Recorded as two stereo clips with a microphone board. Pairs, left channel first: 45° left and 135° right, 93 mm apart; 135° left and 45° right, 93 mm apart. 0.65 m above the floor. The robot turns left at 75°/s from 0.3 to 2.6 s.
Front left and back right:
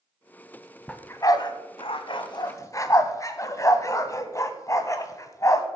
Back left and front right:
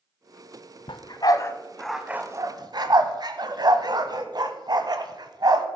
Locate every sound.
0.9 s a dog barking: 120° left, 0.9 m; by 5.7 s 10° right, 0.9 m